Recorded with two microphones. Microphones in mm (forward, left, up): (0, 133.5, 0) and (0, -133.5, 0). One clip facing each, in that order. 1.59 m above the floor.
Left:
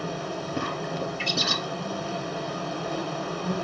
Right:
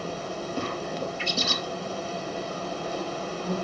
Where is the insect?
65° left (ahead or behind), 1.9 m.